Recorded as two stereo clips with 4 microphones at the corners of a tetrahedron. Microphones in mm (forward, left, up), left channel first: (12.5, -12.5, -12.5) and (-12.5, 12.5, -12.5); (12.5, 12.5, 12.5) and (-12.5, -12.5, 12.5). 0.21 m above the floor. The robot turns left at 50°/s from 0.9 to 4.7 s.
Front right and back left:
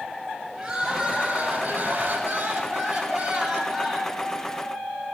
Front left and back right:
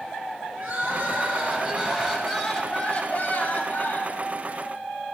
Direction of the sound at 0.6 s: 150° right.